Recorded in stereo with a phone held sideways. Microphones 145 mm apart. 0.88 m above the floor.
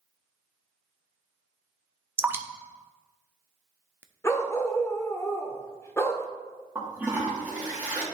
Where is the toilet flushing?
10° right (ahead or behind), 2.0 m.